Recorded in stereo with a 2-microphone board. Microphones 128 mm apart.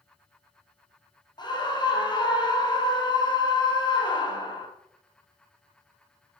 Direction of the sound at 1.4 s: 35° left (ahead or behind).